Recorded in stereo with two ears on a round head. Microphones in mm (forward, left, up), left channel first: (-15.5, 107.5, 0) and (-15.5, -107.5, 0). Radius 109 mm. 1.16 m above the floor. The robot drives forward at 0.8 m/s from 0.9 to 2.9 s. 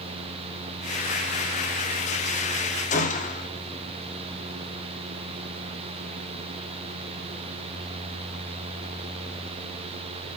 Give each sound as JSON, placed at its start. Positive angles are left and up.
{"t": 2.9, "sound": "a gunshot", "side_deg": 30, "distance_m": 1.1}